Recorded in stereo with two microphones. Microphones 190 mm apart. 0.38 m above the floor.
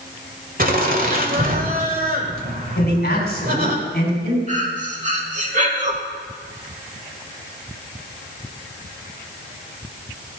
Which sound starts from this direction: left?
A man speaking, at 2.8 s.